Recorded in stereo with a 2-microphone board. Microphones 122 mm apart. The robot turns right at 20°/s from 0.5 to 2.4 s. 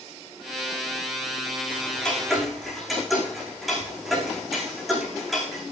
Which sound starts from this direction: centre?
Ticking, at 1.7 s.